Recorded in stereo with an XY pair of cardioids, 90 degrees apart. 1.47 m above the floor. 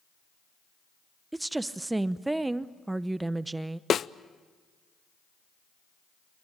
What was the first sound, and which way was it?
A woman speaking, 20° right.